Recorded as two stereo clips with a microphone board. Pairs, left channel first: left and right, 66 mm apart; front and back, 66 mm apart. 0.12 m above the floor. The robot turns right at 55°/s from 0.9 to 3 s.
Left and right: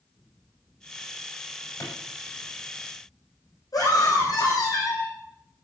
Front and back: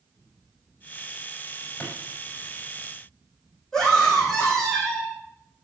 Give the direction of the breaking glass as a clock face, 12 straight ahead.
No breaking glass in this recording.